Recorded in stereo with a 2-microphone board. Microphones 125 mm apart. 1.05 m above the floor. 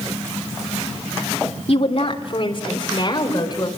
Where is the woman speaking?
55° left (ahead or behind), 2.5 m; by 3.7 s 35° left (ahead or behind), 4.5 m.